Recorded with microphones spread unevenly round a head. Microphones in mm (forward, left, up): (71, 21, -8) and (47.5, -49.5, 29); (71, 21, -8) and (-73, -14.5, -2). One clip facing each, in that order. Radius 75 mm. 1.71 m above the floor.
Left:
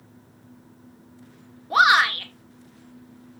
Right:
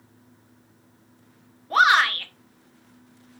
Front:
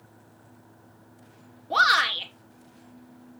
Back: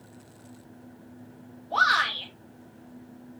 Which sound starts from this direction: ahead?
A shout, at 1.7 s.